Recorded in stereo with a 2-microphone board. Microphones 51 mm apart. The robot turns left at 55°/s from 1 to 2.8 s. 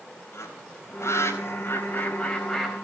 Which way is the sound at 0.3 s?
75° left (ahead or behind).